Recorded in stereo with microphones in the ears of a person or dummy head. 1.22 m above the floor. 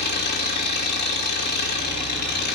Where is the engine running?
50° left (ahead or behind), 1.8 m.